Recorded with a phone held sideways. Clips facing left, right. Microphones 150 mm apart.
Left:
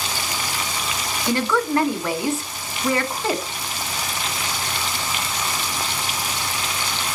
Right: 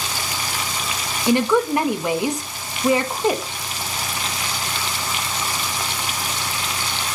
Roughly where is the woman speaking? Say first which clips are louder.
Right 4 dB; centre.